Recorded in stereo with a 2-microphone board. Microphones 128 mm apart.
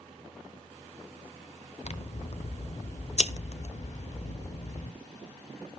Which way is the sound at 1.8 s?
60° left (ahead or behind).